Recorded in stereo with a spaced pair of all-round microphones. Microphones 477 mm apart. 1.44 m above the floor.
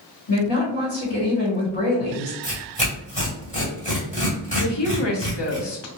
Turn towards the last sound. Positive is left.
turn(degrees=60)  # may be behind; listen again after turning